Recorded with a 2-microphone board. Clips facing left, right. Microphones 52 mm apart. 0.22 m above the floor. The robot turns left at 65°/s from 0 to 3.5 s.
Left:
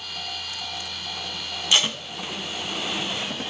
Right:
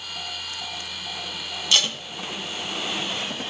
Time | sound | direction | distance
1.7 | tape being pulled | 25° left (ahead or behind) | 0.7 m